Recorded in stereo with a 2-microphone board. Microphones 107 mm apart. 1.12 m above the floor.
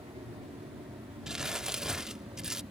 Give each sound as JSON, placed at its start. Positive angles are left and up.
{"t": 0.0, "sound": "an aircraft", "side_deg": -65}
{"t": 1.3, "sound": "crumpling", "side_deg": -5}